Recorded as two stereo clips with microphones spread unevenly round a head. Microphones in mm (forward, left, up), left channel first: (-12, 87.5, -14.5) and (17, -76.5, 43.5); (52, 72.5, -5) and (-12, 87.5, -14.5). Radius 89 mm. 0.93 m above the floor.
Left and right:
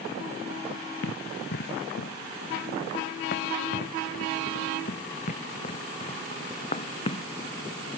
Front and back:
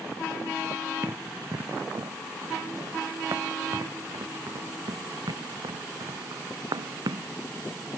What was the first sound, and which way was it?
Running footsteps, 125° left.